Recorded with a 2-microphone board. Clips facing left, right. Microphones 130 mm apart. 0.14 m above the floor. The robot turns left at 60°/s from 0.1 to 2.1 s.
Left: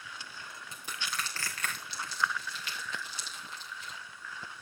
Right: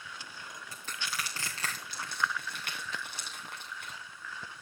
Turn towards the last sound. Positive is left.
turn(degrees=-60)  # may be behind; listen again after turning